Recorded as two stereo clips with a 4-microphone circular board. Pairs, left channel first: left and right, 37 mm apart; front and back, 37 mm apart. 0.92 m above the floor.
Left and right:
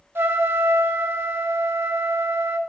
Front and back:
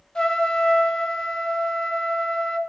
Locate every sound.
0.1 s a trumpet: 70° right, 0.5 m